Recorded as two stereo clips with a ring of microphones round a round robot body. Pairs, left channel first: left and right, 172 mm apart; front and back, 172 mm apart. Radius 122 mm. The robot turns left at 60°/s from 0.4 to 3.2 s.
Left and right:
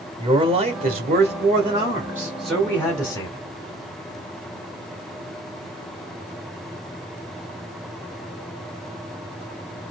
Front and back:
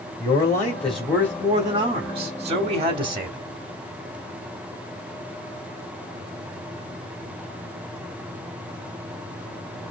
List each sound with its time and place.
0.2 s a man speaking: 55° right, 1.0 m; by 3.4 s 135° left, 1.0 m